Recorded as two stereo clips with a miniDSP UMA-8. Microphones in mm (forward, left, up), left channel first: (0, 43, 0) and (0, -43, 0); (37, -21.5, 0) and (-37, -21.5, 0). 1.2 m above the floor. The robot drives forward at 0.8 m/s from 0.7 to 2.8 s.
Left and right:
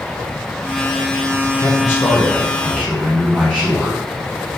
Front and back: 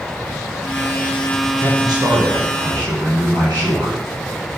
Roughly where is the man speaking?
Behind left.